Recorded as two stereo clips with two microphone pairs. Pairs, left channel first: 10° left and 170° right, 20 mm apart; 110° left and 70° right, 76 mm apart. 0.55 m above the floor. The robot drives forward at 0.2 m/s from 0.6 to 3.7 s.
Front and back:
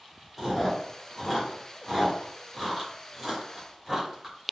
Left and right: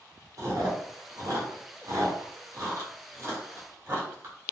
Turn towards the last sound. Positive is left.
turn(degrees=-115)